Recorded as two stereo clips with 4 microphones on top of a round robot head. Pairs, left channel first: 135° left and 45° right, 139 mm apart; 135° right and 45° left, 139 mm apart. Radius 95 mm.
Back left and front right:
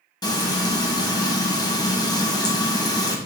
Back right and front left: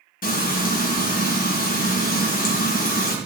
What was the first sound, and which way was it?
Frying, 160° right.